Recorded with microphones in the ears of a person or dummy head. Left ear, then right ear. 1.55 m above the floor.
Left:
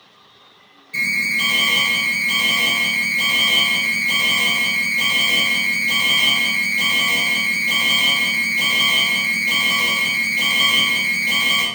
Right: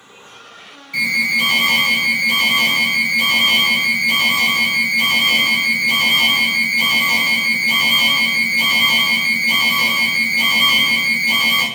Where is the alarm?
5° left (ahead or behind), 1.9 m.